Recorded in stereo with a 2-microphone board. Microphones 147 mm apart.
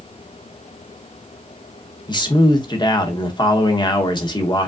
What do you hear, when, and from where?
2.1 s a man speaking: 30° left (ahead or behind), 0.9 m